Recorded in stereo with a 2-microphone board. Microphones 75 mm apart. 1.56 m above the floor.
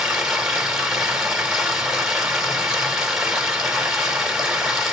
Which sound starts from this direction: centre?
Running water, at 0.0 s.